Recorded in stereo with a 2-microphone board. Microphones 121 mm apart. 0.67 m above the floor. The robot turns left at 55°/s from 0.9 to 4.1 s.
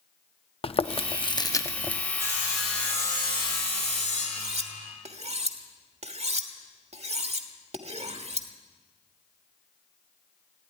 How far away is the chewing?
About 0.6 m.